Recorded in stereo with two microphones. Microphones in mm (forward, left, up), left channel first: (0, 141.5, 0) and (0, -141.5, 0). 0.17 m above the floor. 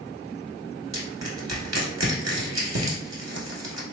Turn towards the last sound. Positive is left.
turn(degrees=-65)  # may be behind; listen again after turning